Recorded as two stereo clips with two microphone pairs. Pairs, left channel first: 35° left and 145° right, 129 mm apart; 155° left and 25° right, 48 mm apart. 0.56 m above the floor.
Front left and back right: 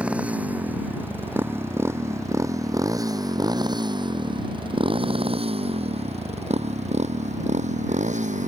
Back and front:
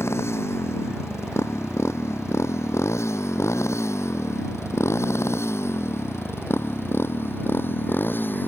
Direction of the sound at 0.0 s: 135° left.